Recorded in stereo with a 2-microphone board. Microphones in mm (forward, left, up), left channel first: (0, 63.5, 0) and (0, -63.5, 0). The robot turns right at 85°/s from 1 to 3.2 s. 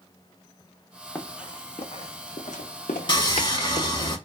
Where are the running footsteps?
15° left (ahead or behind), 0.9 m; by 3.9 s 85° left, 1.0 m.